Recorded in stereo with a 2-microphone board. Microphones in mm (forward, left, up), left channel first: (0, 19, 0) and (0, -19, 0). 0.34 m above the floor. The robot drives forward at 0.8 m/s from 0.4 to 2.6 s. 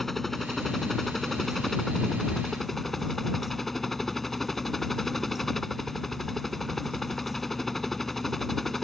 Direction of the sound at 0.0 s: 5° left (ahead or behind).